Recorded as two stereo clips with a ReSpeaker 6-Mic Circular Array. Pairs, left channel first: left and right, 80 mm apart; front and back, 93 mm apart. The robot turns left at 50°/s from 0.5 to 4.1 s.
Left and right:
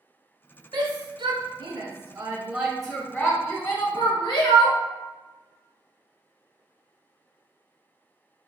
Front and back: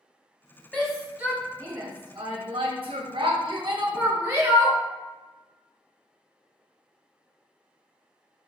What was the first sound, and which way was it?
A shout, 75° right.